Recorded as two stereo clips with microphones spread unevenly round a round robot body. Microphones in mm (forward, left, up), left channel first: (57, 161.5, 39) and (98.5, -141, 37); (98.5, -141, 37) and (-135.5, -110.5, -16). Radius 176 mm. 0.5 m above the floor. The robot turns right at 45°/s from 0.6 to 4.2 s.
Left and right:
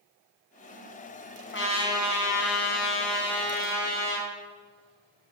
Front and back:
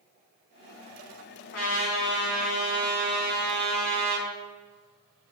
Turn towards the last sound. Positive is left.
turn(degrees=165)